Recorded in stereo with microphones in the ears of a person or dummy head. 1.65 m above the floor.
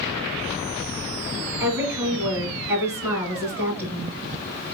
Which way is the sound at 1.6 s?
20° right (ahead or behind).